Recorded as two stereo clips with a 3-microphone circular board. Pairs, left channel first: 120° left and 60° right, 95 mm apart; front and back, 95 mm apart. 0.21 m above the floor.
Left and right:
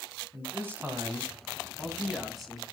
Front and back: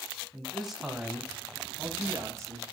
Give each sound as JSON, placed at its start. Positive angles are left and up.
{"t": 0.3, "sound": "a man speaking", "azimuth_deg": -75, "distance_m": 1.8}